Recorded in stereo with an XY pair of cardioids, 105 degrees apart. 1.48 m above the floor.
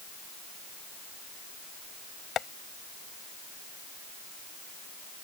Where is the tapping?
60° left.